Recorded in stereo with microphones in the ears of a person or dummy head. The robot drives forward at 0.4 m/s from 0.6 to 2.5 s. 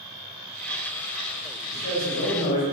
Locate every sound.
1.7 s a man speaking: 55° left (ahead or behind), 2.0 m; by 2.6 s 50° left (ahead or behind), 2 m